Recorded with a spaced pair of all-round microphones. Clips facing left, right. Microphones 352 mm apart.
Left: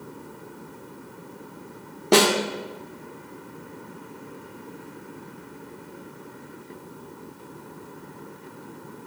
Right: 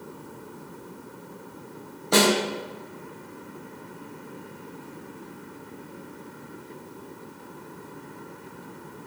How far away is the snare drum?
About 1.7 m.